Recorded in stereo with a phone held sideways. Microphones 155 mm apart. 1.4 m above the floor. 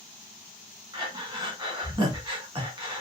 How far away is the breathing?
About 0.9 m.